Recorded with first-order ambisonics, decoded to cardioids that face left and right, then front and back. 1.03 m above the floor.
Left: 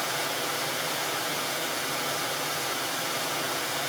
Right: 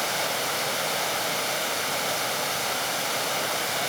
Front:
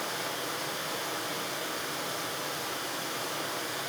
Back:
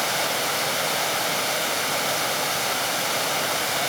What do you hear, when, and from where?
0.0 s running water: 160° right, 1.7 m